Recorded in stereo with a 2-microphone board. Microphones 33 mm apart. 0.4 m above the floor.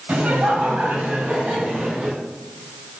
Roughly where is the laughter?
Right.